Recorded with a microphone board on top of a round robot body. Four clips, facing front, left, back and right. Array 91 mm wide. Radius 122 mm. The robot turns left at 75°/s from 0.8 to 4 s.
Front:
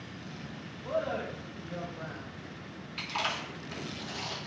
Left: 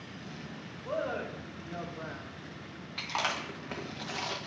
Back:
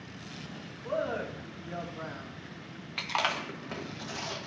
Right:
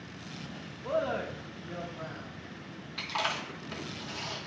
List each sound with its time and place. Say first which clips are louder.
0.8 s a man speaking: right 3 dB, even; 80° right, 2 m; by 2.3 s 165° left, 2 m
3.0 s chewing: even, back 3 dB; straight behind, 1.0 m; by 4.5 s 105° left, 1.0 m